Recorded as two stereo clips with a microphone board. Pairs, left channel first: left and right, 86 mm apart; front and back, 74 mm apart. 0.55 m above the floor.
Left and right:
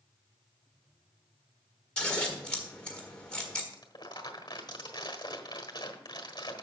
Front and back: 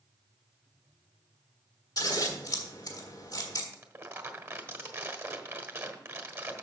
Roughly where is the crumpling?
Behind left.